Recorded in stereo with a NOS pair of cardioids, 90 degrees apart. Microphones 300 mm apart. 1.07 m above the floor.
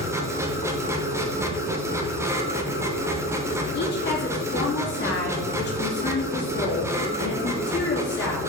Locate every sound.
0.0 s a machine running: 10° right, 1.4 m
3.7 s a woman speaking: 35° left, 2.5 m